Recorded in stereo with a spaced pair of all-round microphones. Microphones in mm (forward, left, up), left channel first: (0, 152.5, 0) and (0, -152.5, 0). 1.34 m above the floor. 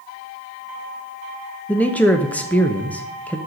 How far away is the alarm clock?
No alarm clock in this recording.